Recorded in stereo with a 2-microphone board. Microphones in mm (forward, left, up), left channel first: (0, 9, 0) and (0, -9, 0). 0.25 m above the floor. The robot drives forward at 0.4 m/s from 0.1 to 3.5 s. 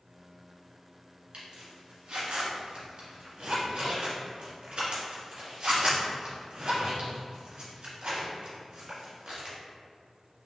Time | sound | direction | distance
1.3 | a zipper | 65° right (ahead or behind) | 1.5 m